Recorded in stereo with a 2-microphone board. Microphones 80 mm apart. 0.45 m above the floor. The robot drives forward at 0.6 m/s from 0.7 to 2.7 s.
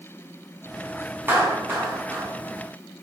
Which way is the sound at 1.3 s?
25° right (ahead or behind).